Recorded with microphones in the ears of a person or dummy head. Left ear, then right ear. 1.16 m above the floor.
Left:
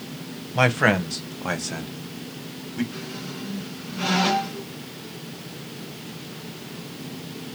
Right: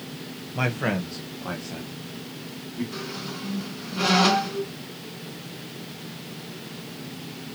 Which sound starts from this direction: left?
A man speaking, at 0.6 s.